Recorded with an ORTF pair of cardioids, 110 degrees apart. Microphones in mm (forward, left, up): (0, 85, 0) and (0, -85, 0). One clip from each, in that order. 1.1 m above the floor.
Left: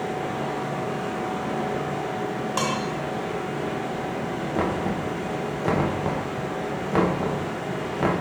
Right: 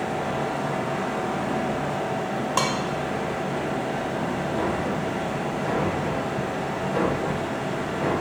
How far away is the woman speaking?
I don't hear a woman speaking.